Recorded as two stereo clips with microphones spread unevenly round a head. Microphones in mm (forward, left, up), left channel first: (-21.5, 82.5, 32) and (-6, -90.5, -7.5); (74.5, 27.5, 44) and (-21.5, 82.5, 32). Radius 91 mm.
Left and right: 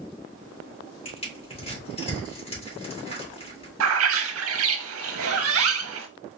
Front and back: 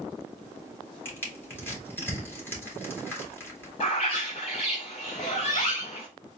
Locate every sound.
1.1 s crushing: 40° left, 2 m
3.8 s a bird: 90° right, 0.8 m